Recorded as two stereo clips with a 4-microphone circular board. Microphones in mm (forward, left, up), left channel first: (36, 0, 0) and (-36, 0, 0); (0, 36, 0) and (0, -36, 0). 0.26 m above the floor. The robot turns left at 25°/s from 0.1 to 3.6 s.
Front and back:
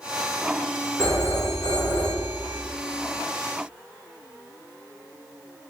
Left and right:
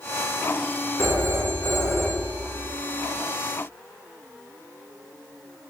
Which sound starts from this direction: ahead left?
A phone ringing, at 1.0 s.